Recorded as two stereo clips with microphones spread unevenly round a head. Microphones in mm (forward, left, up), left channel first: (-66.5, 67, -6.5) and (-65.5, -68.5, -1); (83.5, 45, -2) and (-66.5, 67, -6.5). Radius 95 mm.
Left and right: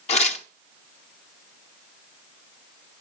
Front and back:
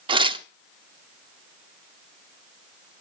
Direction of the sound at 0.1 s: 120° left.